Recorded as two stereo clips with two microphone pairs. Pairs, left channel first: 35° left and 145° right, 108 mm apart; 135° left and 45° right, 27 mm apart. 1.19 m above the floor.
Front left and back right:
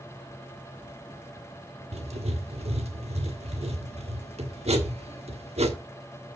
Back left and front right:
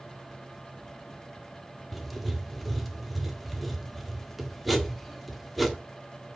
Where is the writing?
140° right, 1.5 m.